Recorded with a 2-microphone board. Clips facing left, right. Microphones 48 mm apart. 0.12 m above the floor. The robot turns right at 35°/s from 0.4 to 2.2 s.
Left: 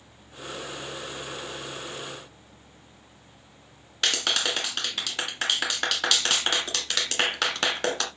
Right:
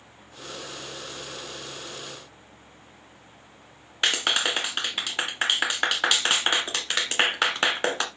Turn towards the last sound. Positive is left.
turn(degrees=-25)  # may be behind; listen again after turning